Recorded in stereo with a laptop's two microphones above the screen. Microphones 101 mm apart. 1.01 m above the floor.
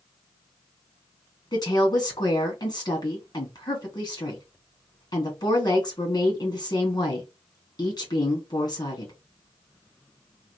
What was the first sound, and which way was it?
A woman speaking, 45° left (ahead or behind).